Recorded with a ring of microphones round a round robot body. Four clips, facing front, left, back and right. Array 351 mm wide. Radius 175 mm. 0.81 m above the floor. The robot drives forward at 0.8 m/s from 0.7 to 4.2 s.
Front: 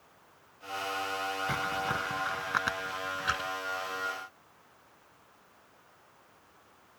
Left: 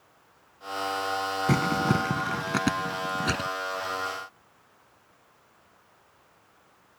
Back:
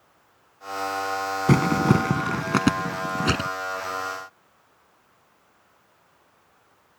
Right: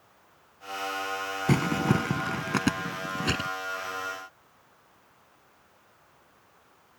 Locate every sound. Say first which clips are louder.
1.5 s crumpling: even, back 17 dB; 175° right